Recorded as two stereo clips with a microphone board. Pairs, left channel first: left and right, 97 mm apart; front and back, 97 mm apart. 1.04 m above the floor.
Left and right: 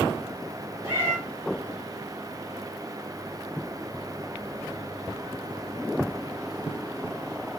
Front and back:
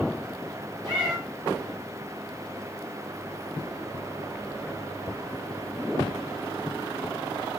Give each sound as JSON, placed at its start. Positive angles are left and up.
{"t": 0.8, "sound": "a cat meowing", "azimuth_deg": -140, "distance_m": 3.5}